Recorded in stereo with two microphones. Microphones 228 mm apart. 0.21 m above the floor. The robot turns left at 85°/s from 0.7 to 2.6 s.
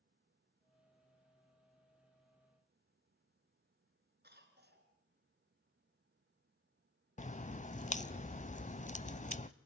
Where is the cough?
45° right (ahead or behind), 3.5 m.